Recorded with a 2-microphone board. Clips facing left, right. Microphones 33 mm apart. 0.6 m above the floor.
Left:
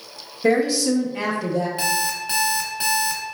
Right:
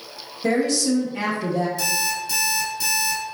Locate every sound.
0.4 s a woman speaking: 20° left (ahead or behind), 0.9 m; by 1.7 s 15° right (ahead or behind), 0.7 m
1.8 s an alarm clock: 45° left (ahead or behind), 0.9 m